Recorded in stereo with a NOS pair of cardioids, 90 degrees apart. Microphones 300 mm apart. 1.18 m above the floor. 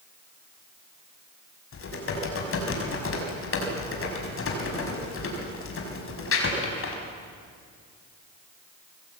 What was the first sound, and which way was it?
Typing on a keyboard, 45° left.